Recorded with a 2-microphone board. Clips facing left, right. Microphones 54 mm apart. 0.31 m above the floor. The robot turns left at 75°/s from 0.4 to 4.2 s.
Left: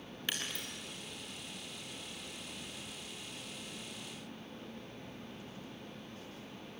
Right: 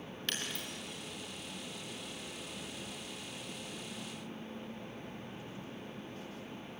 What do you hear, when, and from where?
0.3 s breaking glass: 10° left (ahead or behind), 6 m; by 0.7 s 10° right (ahead or behind), 6 m